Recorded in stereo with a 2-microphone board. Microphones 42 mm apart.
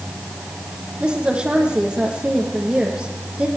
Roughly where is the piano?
No piano in this recording.